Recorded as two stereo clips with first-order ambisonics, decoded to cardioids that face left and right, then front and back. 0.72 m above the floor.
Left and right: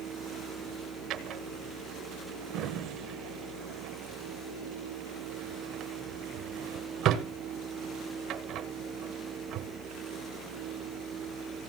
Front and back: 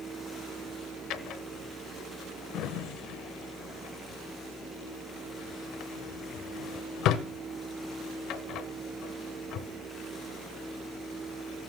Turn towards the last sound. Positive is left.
turn(degrees=-45)